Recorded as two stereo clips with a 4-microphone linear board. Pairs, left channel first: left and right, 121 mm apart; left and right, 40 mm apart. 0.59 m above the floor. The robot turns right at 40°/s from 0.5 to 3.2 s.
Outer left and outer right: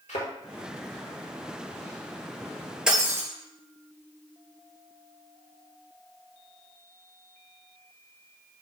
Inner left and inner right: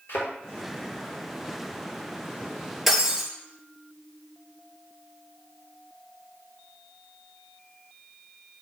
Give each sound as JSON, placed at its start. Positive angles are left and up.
{"t": 0.1, "sound": "a thud", "side_deg": 80, "distance_m": 3.5}
{"t": 2.9, "sound": "breaking glass", "side_deg": -5, "distance_m": 2.5}